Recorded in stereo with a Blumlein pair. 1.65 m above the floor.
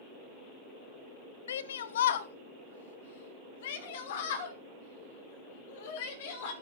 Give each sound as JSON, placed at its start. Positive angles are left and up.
{"t": 1.5, "sound": "a shout", "azimuth_deg": 65, "distance_m": 1.3}